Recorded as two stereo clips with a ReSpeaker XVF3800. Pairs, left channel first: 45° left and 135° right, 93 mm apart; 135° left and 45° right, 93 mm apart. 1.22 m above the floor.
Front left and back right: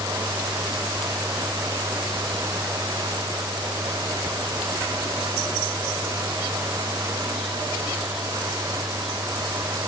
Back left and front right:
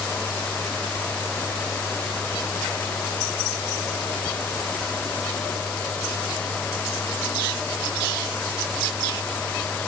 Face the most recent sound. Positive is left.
No sound to turn to.